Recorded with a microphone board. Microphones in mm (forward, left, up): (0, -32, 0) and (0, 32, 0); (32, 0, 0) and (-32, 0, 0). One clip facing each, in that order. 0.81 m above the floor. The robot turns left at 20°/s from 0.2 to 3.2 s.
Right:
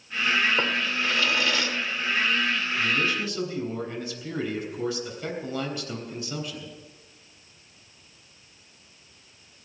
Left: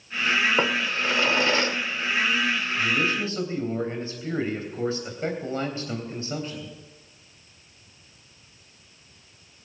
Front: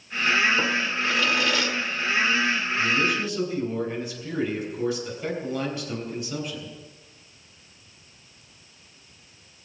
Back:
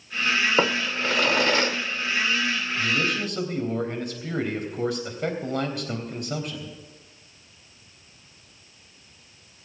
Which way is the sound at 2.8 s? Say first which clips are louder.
Left 2 dB, front 1 dB; 155° left.